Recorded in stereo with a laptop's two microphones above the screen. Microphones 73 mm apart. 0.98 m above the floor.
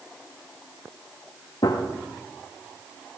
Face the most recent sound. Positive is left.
turn(degrees=70)  # may be behind; listen again after turning